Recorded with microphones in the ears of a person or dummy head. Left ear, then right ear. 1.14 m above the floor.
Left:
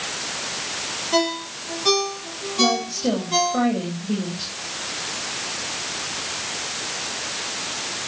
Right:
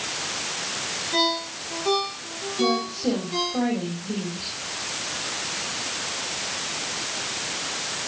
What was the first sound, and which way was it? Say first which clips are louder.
A ringtone: left 1 dB; 65° left (ahead or behind).